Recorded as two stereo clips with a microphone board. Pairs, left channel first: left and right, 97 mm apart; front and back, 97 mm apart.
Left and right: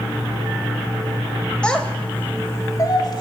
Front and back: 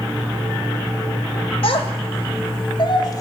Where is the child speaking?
10° left, 2.5 m; by 3.2 s 50° left, 1.5 m.